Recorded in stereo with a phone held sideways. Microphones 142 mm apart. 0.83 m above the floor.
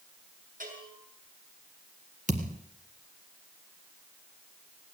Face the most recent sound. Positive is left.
turn(degrees=-60)  # may be behind; listen again after turning